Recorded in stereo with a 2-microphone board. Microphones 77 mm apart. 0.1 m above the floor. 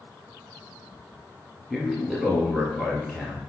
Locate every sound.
1.7 s a man speaking: 5° right (ahead or behind), 2 m